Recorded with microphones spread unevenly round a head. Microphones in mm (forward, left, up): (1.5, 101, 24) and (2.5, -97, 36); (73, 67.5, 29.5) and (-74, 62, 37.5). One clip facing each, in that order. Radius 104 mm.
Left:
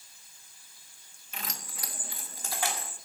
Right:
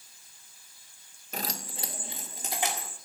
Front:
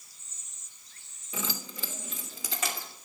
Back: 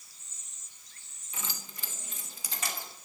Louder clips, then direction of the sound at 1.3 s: Right 7 dB, front 7 dB; 40° right.